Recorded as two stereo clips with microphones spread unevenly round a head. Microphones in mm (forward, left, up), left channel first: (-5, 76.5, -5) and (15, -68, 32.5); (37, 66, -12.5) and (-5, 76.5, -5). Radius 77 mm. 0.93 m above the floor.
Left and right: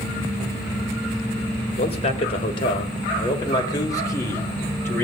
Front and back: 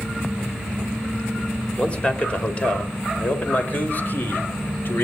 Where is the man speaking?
50° left, 4 m; by 5.0 s 25° left, 4.5 m.